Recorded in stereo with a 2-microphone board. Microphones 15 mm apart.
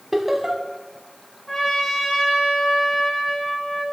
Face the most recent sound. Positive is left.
turn(degrees=25)  # may be behind; listen again after turning